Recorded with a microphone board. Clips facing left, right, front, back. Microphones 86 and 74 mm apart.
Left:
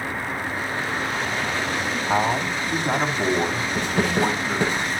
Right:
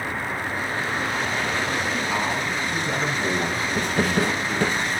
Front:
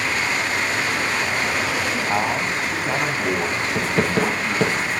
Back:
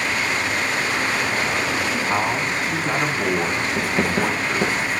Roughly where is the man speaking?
Left.